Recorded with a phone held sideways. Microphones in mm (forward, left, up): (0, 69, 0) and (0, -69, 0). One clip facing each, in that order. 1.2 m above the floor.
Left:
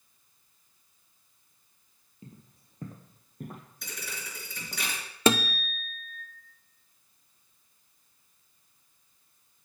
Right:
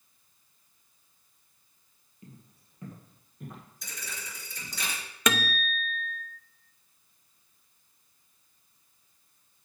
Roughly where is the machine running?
I don't hear a machine running.